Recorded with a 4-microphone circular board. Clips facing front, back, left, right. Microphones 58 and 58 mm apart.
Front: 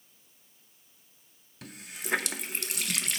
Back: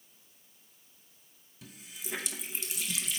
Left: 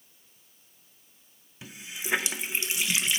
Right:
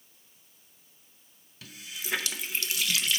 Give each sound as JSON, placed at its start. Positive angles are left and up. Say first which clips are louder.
{"t": 1.6, "sound": "a running tap", "louder": "front 5 dB, left 2 dB", "azimuth_deg": 20, "distance_m": 0.6}